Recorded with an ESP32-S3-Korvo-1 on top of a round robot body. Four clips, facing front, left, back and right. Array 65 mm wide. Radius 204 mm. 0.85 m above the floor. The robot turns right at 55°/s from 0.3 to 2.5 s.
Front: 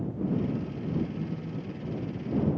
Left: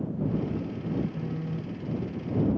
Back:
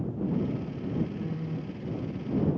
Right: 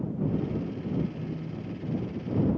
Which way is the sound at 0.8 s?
95° left.